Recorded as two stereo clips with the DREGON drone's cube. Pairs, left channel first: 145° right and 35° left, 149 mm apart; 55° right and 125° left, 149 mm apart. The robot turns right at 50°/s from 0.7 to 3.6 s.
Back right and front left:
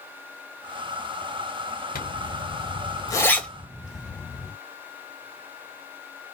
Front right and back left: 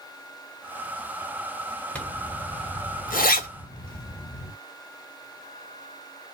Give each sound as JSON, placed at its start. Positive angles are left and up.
{"t": 1.9, "sound": "a zipper", "azimuth_deg": -140, "distance_m": 1.3}